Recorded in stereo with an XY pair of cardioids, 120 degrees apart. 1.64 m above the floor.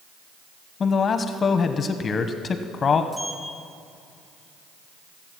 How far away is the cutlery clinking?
No cutlery clinking in this recording.